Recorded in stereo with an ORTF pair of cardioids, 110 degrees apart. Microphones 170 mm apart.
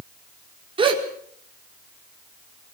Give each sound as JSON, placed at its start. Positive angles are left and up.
{"t": 0.8, "sound": "a gasp", "azimuth_deg": -30, "distance_m": 5.0}